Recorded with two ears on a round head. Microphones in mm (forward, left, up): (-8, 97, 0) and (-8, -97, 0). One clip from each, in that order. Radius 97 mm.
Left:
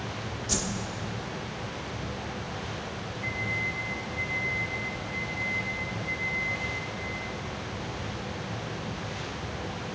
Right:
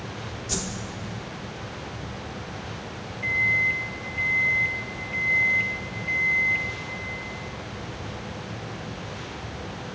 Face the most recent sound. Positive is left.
turn(degrees=-75)  # may be behind; listen again after turning